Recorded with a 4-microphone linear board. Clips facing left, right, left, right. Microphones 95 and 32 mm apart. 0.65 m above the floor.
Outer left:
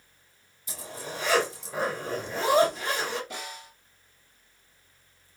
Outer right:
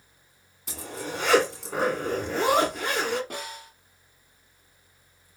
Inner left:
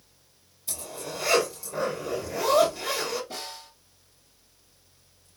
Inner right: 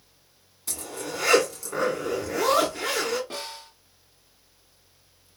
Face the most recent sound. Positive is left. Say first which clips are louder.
# outer right 2 dB, inner right 2 dB
turn(degrees=-50)  # may be behind; listen again after turning